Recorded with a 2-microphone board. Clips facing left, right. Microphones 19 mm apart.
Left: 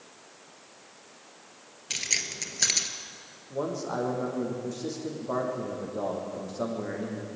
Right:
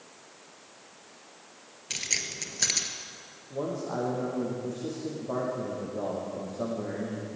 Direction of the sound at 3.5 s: 50° left (ahead or behind).